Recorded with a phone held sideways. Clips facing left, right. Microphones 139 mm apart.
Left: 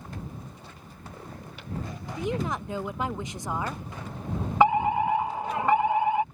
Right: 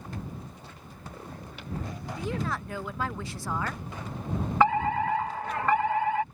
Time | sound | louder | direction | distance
2.2 | a woman speaking | left 3 dB | 20° left (ahead or behind) | ?
4.6 | a fire alarm | left 3 dB | 20° left (ahead or behind) | ?